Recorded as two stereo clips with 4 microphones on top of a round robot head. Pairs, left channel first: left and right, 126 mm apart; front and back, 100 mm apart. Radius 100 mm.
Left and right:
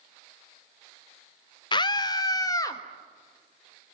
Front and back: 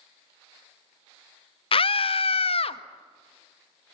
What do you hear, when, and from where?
1.7 s a scream: 30° left, 0.8 m; by 2.8 s 20° left, 1.5 m